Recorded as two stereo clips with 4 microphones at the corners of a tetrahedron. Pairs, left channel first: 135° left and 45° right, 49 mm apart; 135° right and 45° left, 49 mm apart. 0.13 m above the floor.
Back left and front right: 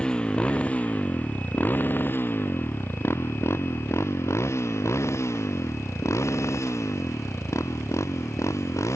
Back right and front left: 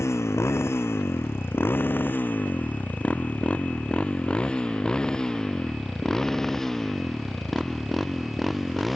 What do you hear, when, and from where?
0.0 s a motorcycle: 155° right; by 9.0 s 135° left